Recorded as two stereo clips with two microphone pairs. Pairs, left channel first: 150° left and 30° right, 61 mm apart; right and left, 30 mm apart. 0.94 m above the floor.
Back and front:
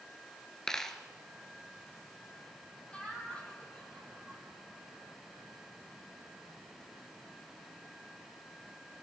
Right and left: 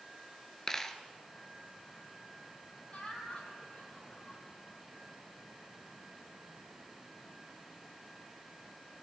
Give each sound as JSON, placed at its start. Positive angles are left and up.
{"t": 0.7, "sound": "a dropped coin", "azimuth_deg": -140, "distance_m": 1.0}
{"t": 2.9, "sound": "laughter", "azimuth_deg": -135, "distance_m": 6.5}